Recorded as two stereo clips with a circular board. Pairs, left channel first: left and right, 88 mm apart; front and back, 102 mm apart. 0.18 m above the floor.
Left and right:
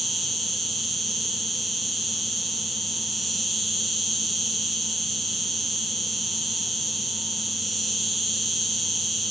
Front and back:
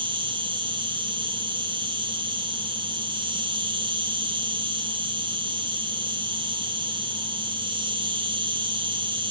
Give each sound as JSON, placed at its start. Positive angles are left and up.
{"t": 0.0, "sound": "an insect", "azimuth_deg": 180, "distance_m": 4.0}